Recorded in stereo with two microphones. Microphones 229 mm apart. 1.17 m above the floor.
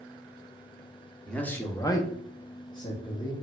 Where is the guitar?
No guitar in this recording.